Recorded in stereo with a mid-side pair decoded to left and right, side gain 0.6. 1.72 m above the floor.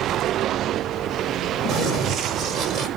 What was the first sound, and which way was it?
Running footsteps, 60° right.